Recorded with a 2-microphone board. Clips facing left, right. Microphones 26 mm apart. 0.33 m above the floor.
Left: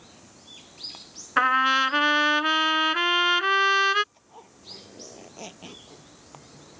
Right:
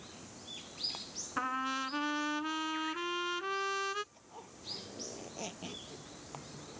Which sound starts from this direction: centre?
A zipper, at 4.1 s.